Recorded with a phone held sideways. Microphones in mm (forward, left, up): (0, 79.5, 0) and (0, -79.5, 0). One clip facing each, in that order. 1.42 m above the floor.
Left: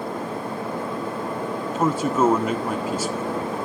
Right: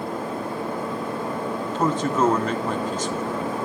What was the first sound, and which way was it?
A man speaking, 10° left (ahead or behind).